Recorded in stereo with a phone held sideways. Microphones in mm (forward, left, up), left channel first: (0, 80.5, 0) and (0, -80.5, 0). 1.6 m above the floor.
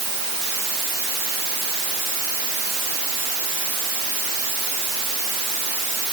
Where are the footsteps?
No footsteps in this recording.